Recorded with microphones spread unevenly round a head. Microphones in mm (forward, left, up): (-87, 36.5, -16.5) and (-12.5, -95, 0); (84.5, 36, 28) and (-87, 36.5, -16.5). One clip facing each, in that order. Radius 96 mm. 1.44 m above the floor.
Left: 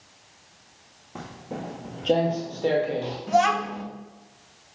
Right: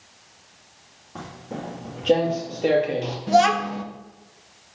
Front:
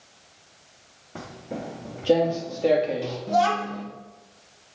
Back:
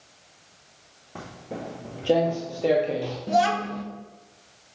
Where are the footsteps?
45° left, 1.5 m; by 3.2 s 60° right, 1.6 m.